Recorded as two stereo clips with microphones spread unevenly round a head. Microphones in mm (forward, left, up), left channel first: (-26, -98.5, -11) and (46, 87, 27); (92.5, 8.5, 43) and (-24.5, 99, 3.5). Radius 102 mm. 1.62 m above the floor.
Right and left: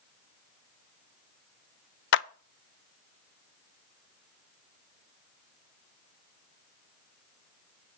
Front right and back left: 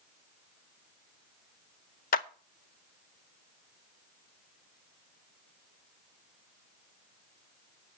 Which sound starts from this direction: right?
A clap, at 2.1 s.